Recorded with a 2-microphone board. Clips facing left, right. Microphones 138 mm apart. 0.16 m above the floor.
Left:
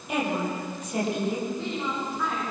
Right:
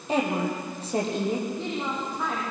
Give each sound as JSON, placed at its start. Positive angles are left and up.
{"t": 0.1, "sound": "a woman speaking", "side_deg": -30, "distance_m": 5.5}
{"t": 1.5, "sound": "a woman speaking", "side_deg": -20, "distance_m": 8.0}